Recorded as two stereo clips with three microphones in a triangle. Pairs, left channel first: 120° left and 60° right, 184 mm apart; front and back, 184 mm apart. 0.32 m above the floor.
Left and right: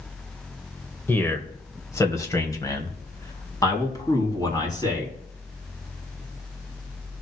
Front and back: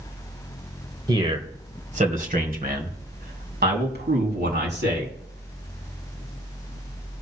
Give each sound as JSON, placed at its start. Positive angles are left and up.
{"t": 1.1, "sound": "a man speaking", "azimuth_deg": 180, "distance_m": 1.4}